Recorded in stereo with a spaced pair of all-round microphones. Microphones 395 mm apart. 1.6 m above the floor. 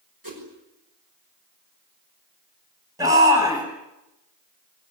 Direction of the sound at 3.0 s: 10° right (ahead or behind).